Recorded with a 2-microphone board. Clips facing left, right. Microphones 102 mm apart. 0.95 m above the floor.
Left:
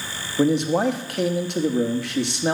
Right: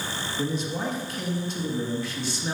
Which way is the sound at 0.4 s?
65° left (ahead or behind).